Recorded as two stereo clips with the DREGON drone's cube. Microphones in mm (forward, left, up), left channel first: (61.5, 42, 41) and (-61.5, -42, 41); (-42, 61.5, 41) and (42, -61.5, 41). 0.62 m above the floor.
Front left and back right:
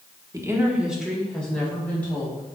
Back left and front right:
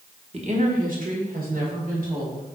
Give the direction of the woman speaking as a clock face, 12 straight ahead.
3 o'clock.